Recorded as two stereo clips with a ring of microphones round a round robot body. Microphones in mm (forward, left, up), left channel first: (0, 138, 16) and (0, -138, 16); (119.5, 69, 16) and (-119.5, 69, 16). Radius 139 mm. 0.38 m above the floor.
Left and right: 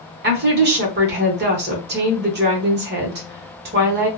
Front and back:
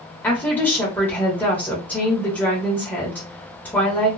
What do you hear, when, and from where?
0.2 s a woman speaking: 80° right, 0.9 m